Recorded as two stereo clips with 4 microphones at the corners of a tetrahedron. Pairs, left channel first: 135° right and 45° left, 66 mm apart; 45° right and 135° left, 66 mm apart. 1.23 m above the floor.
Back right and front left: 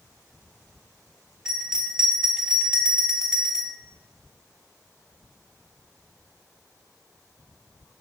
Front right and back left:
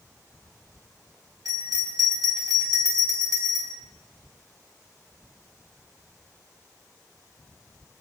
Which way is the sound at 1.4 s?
125° left.